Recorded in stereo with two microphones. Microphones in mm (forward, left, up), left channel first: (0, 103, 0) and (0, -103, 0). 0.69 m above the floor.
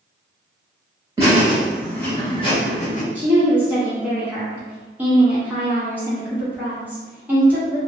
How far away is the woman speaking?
About 1.1 m.